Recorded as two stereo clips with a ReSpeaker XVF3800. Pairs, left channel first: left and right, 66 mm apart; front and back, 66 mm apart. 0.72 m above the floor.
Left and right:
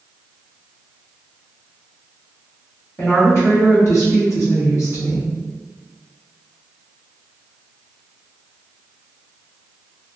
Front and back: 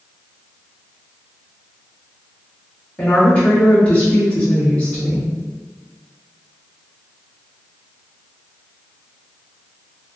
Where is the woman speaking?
65° left, 1.4 m.